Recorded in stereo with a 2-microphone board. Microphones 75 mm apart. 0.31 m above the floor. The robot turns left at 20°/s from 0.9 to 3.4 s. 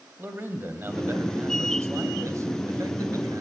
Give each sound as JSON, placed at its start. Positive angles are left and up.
{"t": 0.2, "sound": "a man speaking", "azimuth_deg": -45, "distance_m": 2.0}